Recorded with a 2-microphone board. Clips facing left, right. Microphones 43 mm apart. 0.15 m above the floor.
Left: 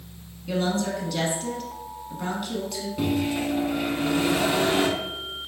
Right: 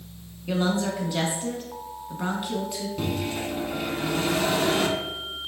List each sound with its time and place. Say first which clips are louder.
0.5 s a woman speaking: even; 25° right (ahead or behind), 1.1 m
3.0 s a microwave: left 6 dB; 10° left (ahead or behind), 0.9 m